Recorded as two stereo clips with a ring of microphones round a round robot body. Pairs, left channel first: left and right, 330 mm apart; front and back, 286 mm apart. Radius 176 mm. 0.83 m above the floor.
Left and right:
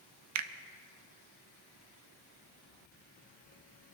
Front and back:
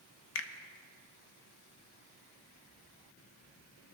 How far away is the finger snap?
About 0.7 m.